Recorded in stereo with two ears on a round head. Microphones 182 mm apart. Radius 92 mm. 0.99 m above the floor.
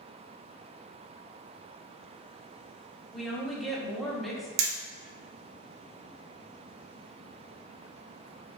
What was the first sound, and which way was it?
A woman speaking, centre (ahead or behind).